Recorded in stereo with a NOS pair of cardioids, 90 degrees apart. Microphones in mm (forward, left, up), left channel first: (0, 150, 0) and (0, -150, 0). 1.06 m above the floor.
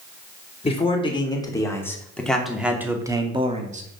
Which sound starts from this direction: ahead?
A man speaking, at 0.6 s.